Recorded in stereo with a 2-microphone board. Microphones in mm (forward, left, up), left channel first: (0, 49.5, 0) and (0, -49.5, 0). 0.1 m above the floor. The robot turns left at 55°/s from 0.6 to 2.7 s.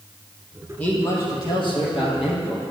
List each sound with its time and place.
0.8 s a man speaking: 165° left, 3 m; by 2.6 s 65° left, 3 m